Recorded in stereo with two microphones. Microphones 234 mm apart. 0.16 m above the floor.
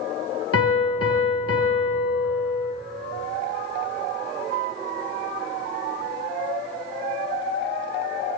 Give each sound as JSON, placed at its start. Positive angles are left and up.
{"t": 0.5, "sound": "a piano", "side_deg": 75, "distance_m": 0.9}